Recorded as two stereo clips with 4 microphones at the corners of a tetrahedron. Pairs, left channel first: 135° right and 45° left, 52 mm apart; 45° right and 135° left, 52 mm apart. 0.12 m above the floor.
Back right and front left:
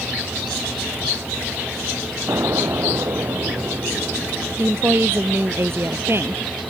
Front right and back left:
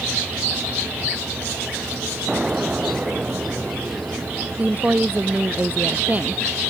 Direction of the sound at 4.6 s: 80° left.